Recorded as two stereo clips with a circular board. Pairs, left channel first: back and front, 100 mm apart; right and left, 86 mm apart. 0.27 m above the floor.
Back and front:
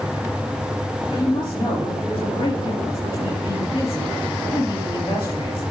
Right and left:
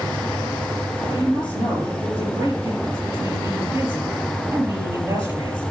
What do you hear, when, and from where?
1.1 s a woman speaking: 145° left, 5.5 m